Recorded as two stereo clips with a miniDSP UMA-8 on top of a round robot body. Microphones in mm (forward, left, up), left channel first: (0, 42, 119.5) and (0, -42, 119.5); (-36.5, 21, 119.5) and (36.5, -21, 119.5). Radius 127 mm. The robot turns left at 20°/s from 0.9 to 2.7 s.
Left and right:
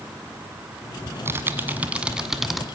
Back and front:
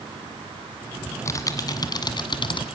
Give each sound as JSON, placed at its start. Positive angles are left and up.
{"t": 1.1, "sound": "typing on a keyboard", "azimuth_deg": -150, "distance_m": 1.6}